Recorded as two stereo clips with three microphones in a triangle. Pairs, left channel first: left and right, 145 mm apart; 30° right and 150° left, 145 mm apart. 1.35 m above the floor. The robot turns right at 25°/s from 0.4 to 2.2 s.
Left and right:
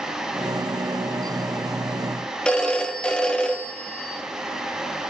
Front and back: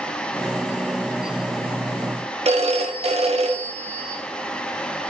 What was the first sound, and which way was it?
A phone ringing, 170° left.